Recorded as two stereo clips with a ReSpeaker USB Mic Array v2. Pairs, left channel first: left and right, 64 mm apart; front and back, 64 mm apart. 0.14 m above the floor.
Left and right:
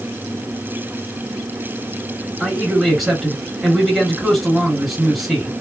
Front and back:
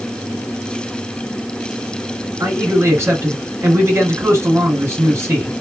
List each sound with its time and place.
2.4 s a man speaking: straight behind, 2 m